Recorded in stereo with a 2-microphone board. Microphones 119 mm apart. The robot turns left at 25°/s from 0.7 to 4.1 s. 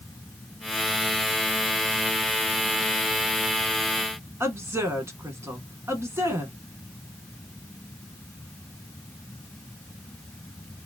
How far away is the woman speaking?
About 1.3 m.